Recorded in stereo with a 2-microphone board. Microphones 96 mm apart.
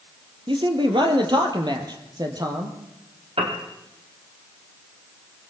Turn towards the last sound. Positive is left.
turn(degrees=-75)  # may be behind; listen again after turning